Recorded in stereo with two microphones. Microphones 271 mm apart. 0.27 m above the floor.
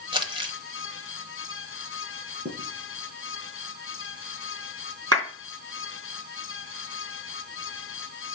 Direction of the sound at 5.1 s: 65° right (ahead or behind).